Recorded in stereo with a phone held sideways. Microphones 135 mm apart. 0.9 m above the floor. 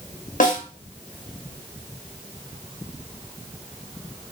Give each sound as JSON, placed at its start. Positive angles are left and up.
{"t": 0.4, "sound": "a snare drum", "side_deg": 80, "distance_m": 1.1}